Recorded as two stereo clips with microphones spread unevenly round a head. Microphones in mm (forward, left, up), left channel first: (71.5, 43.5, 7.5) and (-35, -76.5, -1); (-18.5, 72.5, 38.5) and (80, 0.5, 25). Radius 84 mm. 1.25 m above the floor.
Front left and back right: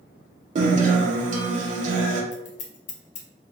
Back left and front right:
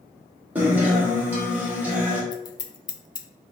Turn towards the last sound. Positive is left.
turn(degrees=90)